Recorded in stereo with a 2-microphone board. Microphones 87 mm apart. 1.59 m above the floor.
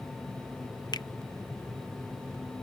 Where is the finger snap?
50° left (ahead or behind).